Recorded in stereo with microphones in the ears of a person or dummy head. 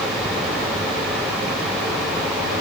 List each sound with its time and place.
Only background noise.